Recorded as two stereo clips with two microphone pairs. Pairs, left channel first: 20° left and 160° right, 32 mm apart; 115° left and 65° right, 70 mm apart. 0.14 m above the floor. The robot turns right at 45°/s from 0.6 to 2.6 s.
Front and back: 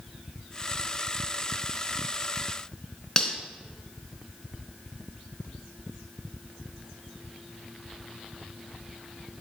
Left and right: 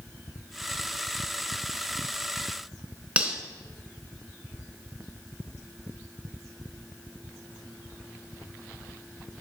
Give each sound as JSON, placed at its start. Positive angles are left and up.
{"t": 3.2, "sound": "cutlery clinking", "azimuth_deg": -25, "distance_m": 1.0}